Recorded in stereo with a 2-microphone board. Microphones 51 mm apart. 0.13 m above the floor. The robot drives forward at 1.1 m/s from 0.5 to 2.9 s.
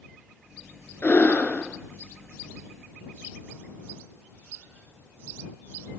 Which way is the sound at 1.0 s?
40° left (ahead or behind).